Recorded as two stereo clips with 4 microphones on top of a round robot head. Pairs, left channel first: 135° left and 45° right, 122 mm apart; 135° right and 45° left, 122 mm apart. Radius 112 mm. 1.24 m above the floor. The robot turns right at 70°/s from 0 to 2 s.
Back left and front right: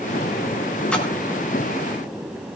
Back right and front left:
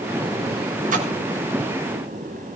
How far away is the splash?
About 6.5 m.